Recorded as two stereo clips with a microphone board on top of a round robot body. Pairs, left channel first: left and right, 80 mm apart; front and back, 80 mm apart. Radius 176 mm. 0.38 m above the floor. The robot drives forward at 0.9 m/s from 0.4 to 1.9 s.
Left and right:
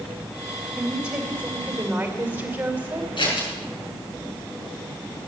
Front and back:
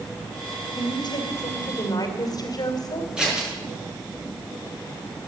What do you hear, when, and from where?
0.8 s a woman speaking: 15° right, 3.5 m; by 3.1 s 25° right, 2.5 m
3.2 s scissors: 100° left, 5.5 m